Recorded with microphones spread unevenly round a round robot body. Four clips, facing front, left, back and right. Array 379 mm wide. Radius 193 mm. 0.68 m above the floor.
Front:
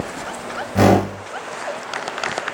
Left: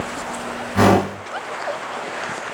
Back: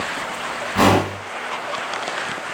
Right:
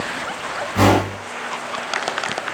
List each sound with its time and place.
0.8 s a whoosh: 5° right, 2.5 m